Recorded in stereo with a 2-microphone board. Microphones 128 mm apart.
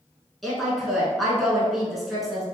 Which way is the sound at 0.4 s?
Centre (ahead or behind).